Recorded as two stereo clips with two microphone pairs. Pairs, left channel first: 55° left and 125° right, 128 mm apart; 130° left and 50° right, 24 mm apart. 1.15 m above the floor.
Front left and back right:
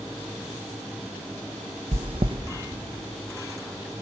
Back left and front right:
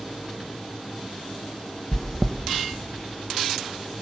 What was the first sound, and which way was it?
Chewing, 160° right.